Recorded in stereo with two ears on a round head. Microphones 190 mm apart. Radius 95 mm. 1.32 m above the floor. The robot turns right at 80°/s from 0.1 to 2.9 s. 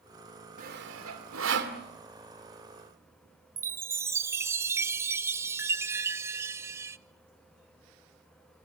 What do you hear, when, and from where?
0.6 s sawing: 40° right (ahead or behind), 2.5 m
3.6 s a chime: 15° right (ahead or behind), 0.6 m